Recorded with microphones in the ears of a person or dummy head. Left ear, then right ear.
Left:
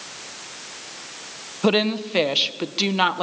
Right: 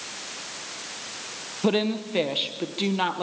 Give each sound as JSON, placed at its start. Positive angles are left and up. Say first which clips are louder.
{"t": 1.6, "sound": "a woman speaking", "louder": "left 4 dB", "side_deg": 25, "distance_m": 1.2}